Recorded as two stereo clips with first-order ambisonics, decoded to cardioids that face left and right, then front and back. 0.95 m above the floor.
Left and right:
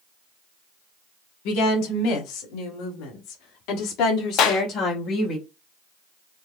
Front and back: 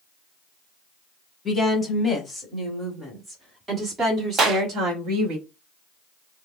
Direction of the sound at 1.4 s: 75° left.